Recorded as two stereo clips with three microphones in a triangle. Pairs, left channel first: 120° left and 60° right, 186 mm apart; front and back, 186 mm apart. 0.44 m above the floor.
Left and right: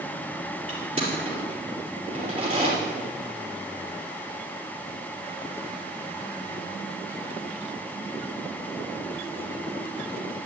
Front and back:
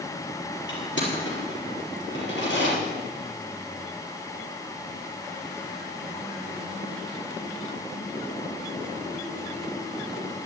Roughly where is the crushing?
Ahead.